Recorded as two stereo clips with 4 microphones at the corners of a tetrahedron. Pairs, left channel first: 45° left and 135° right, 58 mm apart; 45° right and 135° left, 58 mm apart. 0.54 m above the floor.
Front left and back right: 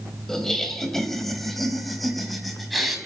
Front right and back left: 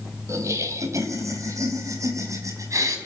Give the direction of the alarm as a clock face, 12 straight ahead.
I don't hear an alarm.